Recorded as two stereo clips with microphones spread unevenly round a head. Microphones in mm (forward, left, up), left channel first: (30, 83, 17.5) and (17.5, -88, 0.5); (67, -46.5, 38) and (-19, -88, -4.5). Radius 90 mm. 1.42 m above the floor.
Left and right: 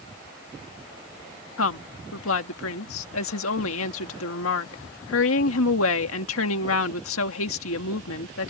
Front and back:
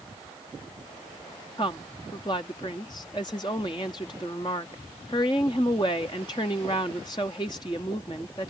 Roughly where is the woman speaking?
Left.